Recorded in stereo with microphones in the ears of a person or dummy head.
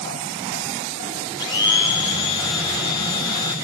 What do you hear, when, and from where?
1.4 s a blender: 20° left (ahead or behind), 1.2 m